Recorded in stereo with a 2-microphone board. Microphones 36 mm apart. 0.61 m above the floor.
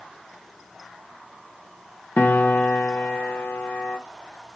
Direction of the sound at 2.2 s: 55° left (ahead or behind).